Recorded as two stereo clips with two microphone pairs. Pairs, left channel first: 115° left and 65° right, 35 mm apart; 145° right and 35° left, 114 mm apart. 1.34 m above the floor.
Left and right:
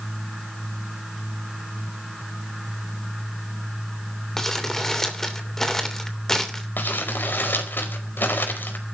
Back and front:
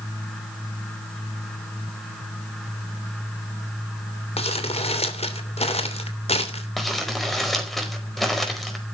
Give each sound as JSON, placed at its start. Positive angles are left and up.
{"t": 4.4, "sound": "crumpling", "azimuth_deg": -170, "distance_m": 3.0}
{"t": 6.8, "sound": "crumpling", "azimuth_deg": 125, "distance_m": 4.5}